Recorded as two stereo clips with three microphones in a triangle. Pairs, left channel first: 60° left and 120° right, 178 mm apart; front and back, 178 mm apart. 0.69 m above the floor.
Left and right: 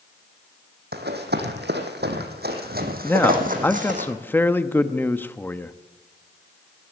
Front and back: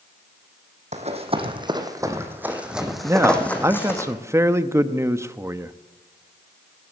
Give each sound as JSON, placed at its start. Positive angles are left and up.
{"t": 0.9, "sound": "running footsteps", "azimuth_deg": -135, "distance_m": 1.9}
{"t": 3.0, "sound": "a man speaking", "azimuth_deg": 125, "distance_m": 0.6}